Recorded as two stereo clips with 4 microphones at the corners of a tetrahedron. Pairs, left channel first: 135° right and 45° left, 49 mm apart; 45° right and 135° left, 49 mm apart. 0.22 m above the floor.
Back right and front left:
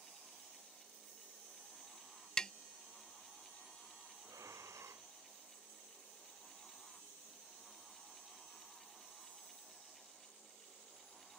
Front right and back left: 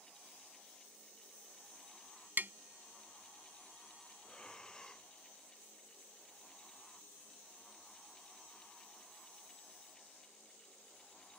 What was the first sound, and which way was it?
Tapping, 155° left.